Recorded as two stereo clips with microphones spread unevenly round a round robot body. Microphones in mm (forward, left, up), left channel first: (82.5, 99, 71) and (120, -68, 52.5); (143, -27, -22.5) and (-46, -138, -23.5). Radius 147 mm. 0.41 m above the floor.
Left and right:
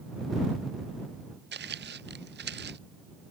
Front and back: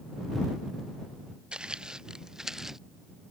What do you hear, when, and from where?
1.5 s footsteps: 65° right; by 2.8 s 60° right